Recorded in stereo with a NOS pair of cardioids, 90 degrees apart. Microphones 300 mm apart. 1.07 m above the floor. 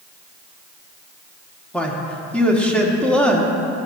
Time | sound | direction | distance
1.7 | a man speaking | 5° left | 1.6 m